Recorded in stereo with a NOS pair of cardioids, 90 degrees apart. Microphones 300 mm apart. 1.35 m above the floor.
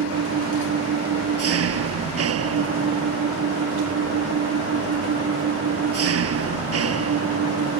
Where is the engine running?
55° right.